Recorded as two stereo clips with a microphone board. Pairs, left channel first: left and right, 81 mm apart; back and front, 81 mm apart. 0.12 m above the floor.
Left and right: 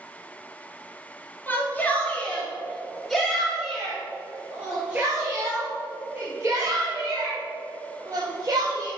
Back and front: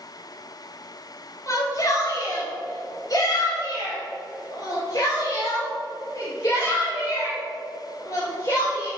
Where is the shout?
150° left, 2.5 m; by 8.9 s 125° right, 4 m.